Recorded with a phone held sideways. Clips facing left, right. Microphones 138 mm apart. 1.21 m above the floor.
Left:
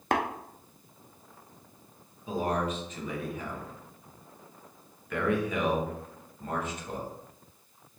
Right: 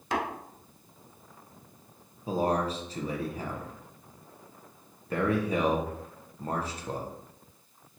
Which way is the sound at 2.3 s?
35° right (ahead or behind).